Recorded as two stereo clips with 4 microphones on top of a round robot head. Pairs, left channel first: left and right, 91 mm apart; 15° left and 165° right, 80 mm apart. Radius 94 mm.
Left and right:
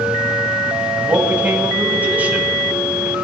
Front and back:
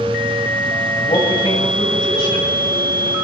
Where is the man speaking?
20° right, 3.5 m.